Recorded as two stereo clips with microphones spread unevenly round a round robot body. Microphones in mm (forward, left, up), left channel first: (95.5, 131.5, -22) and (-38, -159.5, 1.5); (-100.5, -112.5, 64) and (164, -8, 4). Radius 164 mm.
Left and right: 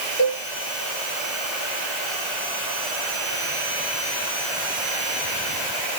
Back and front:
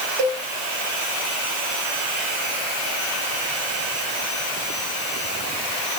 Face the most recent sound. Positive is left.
turn(degrees=5)